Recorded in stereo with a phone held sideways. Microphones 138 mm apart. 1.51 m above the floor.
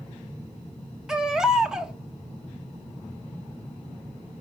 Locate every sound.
1.1 s a baby crying: 5° right (ahead or behind), 1.3 m